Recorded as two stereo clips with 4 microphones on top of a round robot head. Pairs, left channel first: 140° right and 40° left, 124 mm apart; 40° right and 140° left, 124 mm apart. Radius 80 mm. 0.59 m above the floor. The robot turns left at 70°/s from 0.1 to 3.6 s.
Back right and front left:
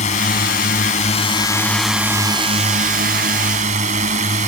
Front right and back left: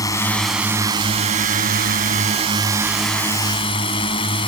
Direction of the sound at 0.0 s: 105° right.